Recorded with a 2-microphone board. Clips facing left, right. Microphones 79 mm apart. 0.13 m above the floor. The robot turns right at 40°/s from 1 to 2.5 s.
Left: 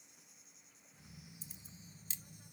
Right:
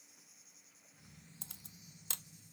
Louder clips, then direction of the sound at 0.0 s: Left 1 dB; straight ahead.